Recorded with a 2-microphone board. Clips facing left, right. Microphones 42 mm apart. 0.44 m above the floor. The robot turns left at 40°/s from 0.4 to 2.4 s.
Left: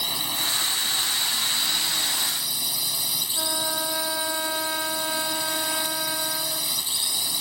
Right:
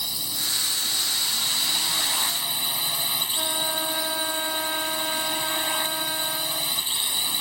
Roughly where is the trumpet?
Centre.